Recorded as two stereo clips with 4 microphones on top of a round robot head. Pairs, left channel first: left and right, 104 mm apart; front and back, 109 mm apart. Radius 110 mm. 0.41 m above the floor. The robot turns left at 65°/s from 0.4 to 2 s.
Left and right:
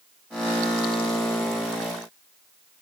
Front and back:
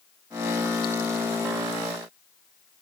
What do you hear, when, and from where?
Only background noise.